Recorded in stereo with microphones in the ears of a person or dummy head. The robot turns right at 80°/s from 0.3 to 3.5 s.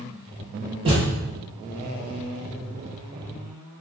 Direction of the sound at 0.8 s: 30° right (ahead or behind).